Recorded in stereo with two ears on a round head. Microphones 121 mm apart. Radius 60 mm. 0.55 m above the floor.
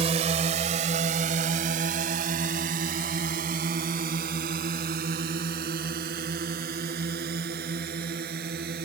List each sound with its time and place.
0.0 s a drone: 50° right (ahead or behind); by 8.9 s 80° right